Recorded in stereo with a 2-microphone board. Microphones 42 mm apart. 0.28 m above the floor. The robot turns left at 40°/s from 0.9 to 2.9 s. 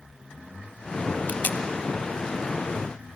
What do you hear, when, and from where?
1.3 s tape being pulled: 45° left (ahead or behind), 0.8 m; by 1.6 s 55° left (ahead or behind), 0.8 m